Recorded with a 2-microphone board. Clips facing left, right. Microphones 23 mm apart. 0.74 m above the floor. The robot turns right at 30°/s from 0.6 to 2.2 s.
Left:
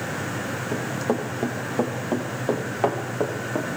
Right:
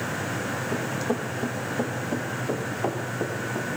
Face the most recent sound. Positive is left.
turn(degrees=80)